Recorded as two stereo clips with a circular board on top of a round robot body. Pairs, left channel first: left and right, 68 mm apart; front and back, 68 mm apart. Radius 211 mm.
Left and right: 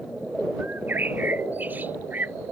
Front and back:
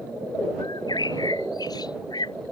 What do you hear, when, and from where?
0.6 s a bird: 25° right